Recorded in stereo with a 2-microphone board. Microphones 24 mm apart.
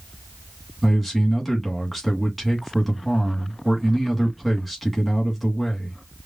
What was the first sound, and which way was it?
A man speaking, 5° right (ahead or behind).